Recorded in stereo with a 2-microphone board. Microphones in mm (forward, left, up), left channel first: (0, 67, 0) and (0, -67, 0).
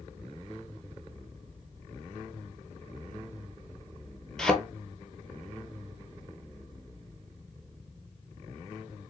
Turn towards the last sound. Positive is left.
turn(degrees=5)  # may be behind; listen again after turning